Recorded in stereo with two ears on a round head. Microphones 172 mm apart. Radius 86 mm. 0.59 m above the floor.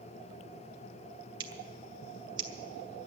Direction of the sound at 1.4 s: 25° right (ahead or behind).